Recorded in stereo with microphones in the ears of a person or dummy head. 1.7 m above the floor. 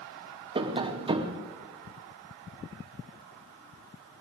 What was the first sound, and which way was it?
Tapping, 25° right (ahead or behind).